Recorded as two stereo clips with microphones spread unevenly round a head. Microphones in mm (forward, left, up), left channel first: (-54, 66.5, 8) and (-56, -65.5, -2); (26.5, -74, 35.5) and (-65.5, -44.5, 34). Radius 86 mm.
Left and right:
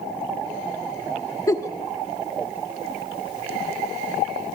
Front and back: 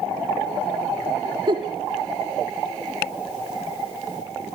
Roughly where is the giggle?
Behind left.